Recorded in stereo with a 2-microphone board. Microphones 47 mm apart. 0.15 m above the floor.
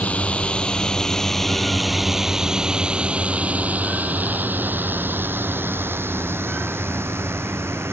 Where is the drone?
30° left (ahead or behind); by 7.9 s 65° right (ahead or behind).